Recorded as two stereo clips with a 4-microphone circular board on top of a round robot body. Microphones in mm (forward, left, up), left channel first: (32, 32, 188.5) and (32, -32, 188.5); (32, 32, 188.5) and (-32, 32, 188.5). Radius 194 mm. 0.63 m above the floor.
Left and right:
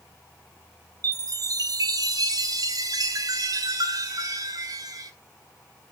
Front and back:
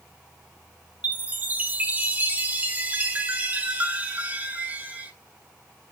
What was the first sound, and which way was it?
A chime, 110° right.